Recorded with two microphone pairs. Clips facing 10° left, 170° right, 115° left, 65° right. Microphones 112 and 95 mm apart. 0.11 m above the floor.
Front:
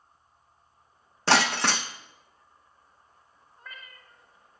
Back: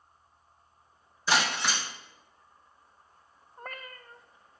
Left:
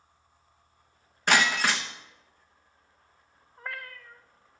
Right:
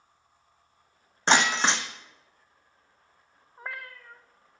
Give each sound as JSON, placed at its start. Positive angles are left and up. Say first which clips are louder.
{"t": 1.3, "sound": "breaking glass", "louder": "front 5 dB, right 1 dB", "azimuth_deg": 0, "distance_m": 1.2}
{"t": 3.6, "sound": "a cat meowing", "louder": "back 6 dB, even", "azimuth_deg": -135, "distance_m": 1.1}